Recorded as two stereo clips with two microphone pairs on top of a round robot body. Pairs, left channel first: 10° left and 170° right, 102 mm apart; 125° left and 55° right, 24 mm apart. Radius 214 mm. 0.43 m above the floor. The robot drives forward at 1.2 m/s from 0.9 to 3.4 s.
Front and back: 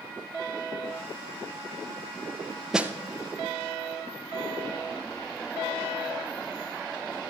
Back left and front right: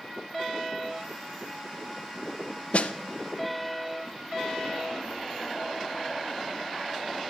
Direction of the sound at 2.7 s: 100° left.